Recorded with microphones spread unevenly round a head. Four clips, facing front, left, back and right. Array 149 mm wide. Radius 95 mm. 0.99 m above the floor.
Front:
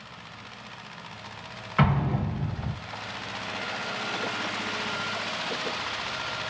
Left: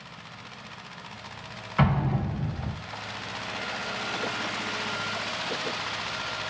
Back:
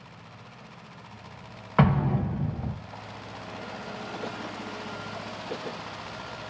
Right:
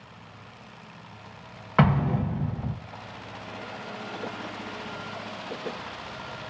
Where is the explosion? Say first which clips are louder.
Right 3 dB, back 2 dB; 135° right, 0.6 m.